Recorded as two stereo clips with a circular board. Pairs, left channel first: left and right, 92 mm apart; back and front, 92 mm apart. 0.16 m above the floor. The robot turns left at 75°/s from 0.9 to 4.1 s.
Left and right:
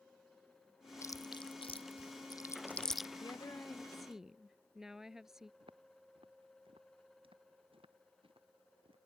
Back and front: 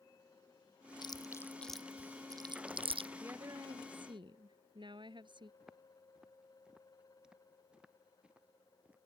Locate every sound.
1.0 s chewing: 145° left; by 3.1 s 10° right
3.2 s a woman speaking: 60° left; by 5.5 s 5° right
5.6 s footsteps: 85° right; by 9.0 s 75° right